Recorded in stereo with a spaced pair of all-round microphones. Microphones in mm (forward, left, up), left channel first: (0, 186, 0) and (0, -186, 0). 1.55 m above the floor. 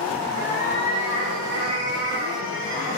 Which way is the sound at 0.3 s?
40° right (ahead or behind).